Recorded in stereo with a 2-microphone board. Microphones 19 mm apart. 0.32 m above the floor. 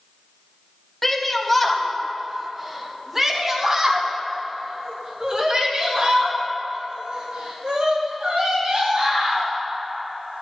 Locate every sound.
1.0 s a shout: 15° left (ahead or behind), 2 m; by 9.5 s 55° right (ahead or behind), 6 m